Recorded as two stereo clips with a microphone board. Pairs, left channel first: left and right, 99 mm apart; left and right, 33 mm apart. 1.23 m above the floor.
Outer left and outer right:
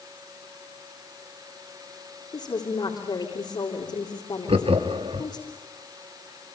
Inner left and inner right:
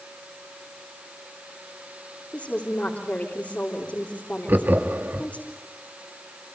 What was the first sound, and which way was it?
A woman speaking, 50° left (ahead or behind).